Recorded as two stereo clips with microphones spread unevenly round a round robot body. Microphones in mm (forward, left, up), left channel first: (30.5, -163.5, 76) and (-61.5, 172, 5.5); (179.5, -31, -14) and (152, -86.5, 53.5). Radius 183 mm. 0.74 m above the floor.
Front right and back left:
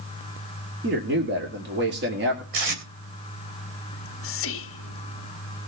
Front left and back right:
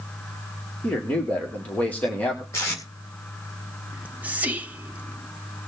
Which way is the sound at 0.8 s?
55° left.